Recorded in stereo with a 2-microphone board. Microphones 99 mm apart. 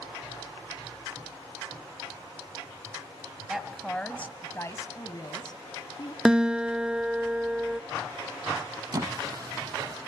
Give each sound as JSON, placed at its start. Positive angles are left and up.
{"t": 3.5, "sound": "a woman speaking", "side_deg": -5, "distance_m": 1.2}
{"t": 6.2, "sound": "a guitar", "side_deg": -10, "distance_m": 0.5}
{"t": 8.9, "sound": "a squeak", "side_deg": -40, "distance_m": 0.6}